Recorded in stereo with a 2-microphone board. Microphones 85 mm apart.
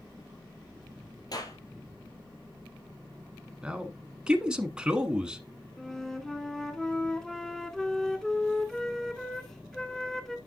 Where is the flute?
5° left (ahead or behind), 0.8 m.